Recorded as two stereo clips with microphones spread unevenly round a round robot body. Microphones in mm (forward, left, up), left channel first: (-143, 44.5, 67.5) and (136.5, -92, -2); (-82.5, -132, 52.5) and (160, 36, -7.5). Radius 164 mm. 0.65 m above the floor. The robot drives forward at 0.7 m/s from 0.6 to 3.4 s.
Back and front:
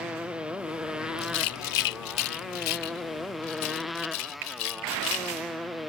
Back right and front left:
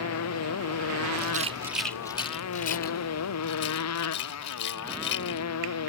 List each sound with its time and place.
0.0 s a motorcycle: 115° right
1.2 s a rattle: 90° left; by 5.5 s 155° left